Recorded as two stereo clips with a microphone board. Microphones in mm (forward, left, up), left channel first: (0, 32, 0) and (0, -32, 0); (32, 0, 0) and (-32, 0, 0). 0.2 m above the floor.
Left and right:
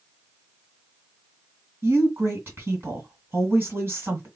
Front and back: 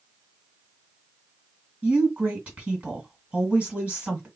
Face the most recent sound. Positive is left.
turn(degrees=-115)